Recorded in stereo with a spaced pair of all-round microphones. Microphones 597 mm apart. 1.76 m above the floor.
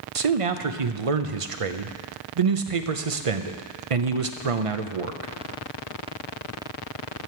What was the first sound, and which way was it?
A man speaking, 65° right (ahead or behind).